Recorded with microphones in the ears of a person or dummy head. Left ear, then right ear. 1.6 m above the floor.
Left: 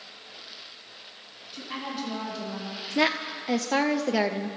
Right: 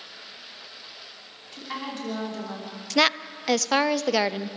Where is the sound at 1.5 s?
35° right (ahead or behind), 5 m.